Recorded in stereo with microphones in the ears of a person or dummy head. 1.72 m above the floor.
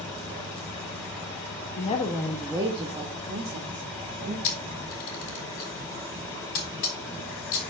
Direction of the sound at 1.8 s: 35° left (ahead or behind).